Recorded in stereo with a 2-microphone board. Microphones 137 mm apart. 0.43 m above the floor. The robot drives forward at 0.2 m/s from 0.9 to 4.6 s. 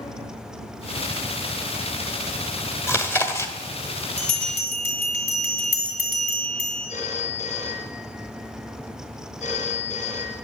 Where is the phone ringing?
65° left (ahead or behind), 3.5 m.